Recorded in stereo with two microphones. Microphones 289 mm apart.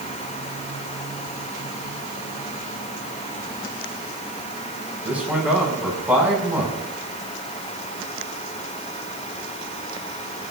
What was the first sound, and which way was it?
A man speaking, 5° right (ahead or behind).